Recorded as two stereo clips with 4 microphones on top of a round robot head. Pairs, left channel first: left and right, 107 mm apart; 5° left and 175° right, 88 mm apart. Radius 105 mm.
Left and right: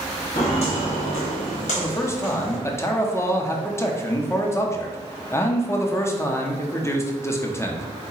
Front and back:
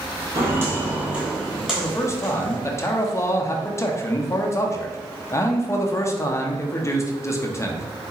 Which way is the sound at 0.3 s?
140° left.